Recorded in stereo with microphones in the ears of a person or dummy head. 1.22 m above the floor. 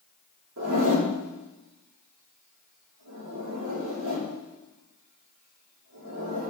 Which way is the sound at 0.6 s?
75° right (ahead or behind).